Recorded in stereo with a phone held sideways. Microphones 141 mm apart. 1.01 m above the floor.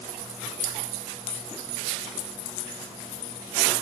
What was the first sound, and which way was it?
Only background noise.